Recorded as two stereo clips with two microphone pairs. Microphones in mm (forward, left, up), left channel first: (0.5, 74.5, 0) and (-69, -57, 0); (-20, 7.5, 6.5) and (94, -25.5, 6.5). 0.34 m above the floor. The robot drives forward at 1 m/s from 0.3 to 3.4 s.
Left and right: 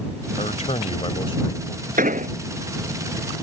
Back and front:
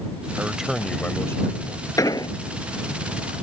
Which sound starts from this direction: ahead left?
A man speaking, at 0.4 s.